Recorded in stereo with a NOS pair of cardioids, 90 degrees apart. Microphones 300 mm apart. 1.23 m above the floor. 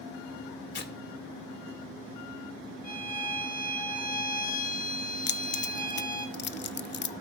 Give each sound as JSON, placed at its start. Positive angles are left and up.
{"t": 0.7, "sound": "tearing paper", "azimuth_deg": 35, "distance_m": 2.0}
{"t": 2.8, "sound": "a violin", "azimuth_deg": 30, "distance_m": 5.0}
{"t": 5.3, "sound": "keys jangling", "azimuth_deg": 40, "distance_m": 0.6}